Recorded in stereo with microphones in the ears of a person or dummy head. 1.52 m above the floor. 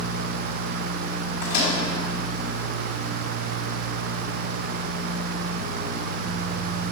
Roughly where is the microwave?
Left.